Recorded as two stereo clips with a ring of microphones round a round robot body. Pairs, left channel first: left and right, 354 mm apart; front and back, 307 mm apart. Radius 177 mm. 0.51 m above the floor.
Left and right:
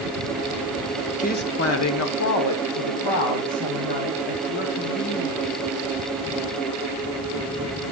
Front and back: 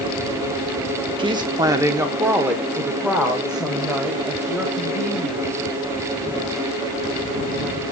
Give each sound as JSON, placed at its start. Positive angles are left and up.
{"t": 1.2, "sound": "a woman speaking", "azimuth_deg": 130, "distance_m": 0.8}